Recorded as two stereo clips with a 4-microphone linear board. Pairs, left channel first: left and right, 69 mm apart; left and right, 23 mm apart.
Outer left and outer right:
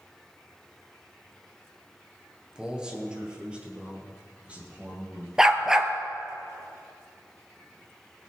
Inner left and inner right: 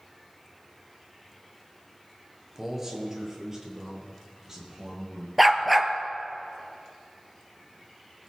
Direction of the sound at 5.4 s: 10° right (ahead or behind).